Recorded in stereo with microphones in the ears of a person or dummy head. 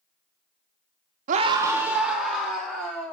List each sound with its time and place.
1.3 s a scream: 45° right (ahead or behind), 0.5 m; by 3.1 s 5° left (ahead or behind), 3 m